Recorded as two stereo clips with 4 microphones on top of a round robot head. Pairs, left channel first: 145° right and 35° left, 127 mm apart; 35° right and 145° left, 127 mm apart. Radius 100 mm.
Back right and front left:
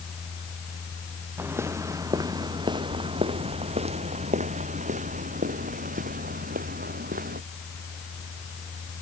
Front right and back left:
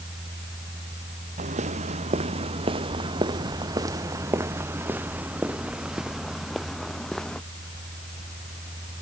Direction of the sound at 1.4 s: 110° left.